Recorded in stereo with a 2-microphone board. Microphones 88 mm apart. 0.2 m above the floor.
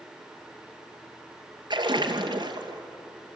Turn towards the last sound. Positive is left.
turn(degrees=-55)  # may be behind; listen again after turning